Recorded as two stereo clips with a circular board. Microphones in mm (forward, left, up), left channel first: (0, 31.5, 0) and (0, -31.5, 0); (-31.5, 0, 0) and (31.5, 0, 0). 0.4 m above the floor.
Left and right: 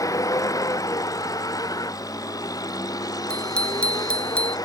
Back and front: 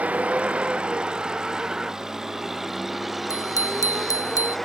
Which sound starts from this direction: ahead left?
A vehicle, at 0.0 s.